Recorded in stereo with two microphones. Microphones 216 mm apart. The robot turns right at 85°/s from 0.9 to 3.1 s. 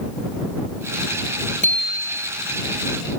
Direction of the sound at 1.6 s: 145° right.